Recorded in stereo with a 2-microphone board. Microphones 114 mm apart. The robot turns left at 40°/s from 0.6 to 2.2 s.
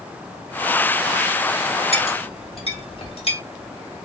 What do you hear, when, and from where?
1.9 s a clink: 60° left (ahead or behind), 1.2 m; by 3.4 s 55° left (ahead or behind), 1.2 m